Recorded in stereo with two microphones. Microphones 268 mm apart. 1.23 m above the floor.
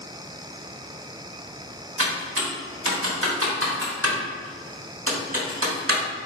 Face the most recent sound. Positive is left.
turn(degrees=-55)  # may be behind; listen again after turning